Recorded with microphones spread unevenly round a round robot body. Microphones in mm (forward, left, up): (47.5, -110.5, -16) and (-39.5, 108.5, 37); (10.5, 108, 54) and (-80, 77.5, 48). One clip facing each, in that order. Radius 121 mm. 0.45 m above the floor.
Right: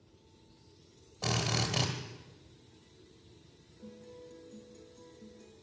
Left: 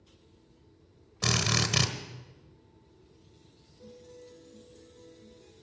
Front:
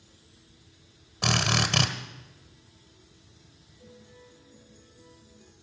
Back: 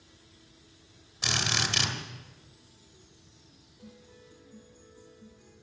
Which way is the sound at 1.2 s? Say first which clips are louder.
Left 3 dB, front 5 dB; 45° left.